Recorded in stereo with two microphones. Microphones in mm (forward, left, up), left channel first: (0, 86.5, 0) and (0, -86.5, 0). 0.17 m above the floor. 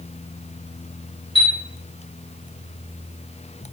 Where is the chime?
20° left (ahead or behind), 1.8 m.